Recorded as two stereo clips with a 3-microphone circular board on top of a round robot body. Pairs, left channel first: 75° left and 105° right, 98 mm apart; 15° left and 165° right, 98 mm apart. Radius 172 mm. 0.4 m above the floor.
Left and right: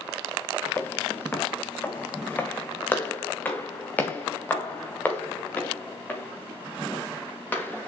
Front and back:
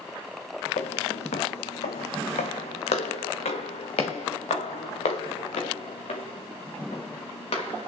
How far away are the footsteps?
About 0.7 m.